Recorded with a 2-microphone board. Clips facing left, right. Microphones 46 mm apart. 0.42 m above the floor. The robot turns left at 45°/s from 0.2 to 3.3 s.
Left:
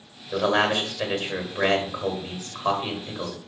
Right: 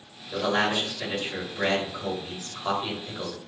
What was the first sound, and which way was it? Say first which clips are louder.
A man speaking: left 3 dB; 150° left.